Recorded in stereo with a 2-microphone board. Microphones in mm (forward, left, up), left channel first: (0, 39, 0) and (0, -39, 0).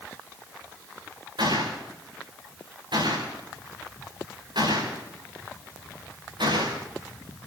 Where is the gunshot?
85° right, 8.5 m.